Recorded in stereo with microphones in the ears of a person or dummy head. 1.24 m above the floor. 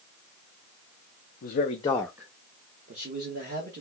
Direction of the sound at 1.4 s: 50° left (ahead or behind).